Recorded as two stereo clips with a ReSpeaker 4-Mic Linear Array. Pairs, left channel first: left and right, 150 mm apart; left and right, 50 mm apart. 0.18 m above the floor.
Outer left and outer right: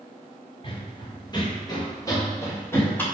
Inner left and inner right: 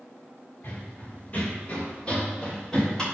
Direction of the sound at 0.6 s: 35° left (ahead or behind).